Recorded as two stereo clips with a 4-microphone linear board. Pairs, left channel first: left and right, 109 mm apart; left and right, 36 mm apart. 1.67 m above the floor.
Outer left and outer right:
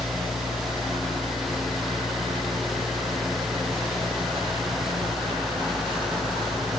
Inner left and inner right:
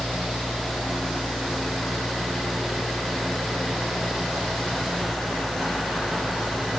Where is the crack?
I don't hear a crack.